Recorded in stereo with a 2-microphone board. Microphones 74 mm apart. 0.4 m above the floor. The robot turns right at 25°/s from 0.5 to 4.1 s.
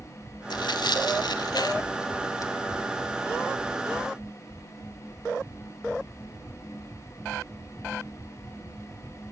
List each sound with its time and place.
0.5 s tearing paper: 75° left (ahead or behind), 0.9 m; by 2.5 s 50° left (ahead or behind), 0.9 m